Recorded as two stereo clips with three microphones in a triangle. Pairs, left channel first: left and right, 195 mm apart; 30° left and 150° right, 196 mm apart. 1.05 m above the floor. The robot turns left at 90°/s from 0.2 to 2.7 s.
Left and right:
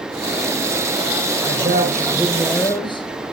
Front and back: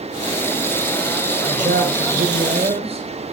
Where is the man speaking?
95° right, 5 m; by 3.1 s 155° left, 5 m.